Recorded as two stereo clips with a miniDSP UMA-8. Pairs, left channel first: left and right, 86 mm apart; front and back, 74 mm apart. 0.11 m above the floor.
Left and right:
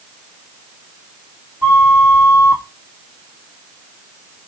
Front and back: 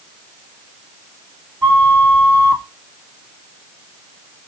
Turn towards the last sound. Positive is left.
turn(degrees=-125)